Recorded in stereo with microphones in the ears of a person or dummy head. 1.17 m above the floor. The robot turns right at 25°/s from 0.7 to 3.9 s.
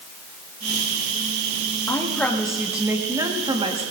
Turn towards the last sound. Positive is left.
turn(degrees=-140)